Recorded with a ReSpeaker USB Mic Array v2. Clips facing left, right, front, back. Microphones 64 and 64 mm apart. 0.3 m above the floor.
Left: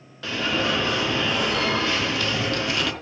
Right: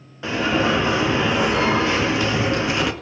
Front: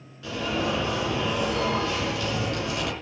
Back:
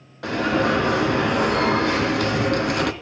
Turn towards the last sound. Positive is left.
turn(degrees=-155)